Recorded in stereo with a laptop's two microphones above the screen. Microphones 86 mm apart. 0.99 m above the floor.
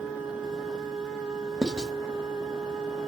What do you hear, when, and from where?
0.0 s a machine running: 5° right (ahead or behind), 6.5 m
1.6 s writing: 10° right (ahead or behind), 1.0 m